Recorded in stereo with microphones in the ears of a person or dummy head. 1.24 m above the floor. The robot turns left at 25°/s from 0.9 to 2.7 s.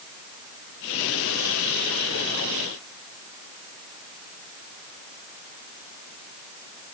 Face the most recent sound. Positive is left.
No sound to turn to.